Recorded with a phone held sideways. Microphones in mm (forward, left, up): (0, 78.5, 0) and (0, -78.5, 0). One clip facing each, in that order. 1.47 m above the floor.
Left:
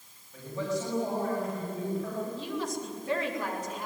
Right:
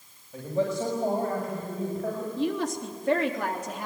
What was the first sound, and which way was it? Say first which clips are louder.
A man speaking: right 5 dB; 60° right (ahead or behind).